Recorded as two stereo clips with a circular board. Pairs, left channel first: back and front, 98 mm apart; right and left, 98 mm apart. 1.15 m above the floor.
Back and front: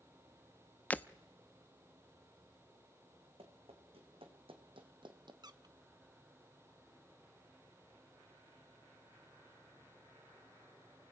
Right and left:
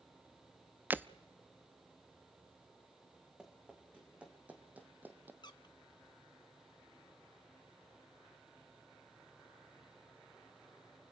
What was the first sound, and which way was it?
Breaking glass, 130° left.